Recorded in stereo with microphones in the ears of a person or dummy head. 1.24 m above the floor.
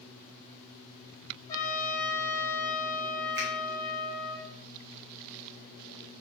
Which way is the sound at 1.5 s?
20° left (ahead or behind).